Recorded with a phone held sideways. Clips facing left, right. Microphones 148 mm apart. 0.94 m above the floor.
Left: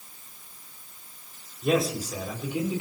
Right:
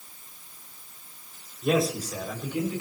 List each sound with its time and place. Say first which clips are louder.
1.6 s a man speaking: even; centre (ahead or behind), 5 m; by 2.8 s 20° left (ahead or behind), 5.5 m